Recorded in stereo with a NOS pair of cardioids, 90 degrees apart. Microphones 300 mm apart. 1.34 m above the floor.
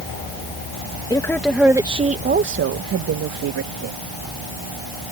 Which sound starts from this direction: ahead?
A woman speaking, at 1.1 s.